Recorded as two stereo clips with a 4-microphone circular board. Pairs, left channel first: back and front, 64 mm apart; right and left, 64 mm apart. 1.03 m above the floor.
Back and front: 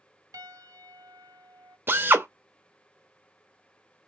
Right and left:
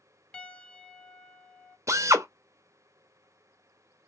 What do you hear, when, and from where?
0.3 s a piano: 15° right, 0.7 m
1.9 s a drill: 55° left, 0.7 m